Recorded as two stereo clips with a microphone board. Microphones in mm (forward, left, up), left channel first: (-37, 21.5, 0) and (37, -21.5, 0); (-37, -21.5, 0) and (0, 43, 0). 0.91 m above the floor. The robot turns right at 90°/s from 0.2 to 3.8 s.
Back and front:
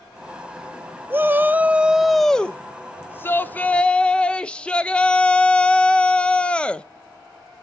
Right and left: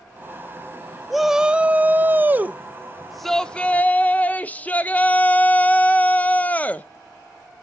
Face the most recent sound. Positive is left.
turn(degrees=-150)